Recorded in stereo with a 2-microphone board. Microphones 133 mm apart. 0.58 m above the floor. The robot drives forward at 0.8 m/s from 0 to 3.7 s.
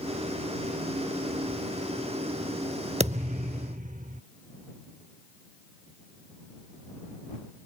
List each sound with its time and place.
3.0 s a thud: 55° right (ahead or behind); by 4.2 s 75° right (ahead or behind)